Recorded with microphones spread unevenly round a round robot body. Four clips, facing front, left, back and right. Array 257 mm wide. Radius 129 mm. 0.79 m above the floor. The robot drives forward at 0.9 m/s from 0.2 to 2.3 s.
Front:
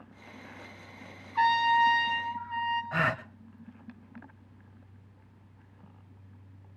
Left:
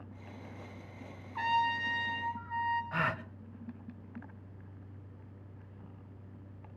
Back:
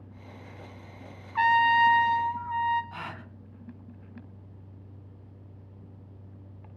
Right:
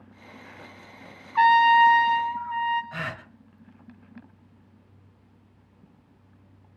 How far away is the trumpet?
About 1.9 m.